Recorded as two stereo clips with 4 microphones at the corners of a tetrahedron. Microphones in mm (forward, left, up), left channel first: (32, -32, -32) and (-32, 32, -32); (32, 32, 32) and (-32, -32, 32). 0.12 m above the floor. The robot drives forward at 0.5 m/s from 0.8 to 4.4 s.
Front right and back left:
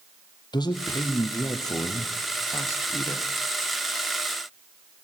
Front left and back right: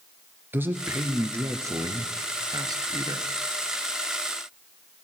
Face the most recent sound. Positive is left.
turn(degrees=-120)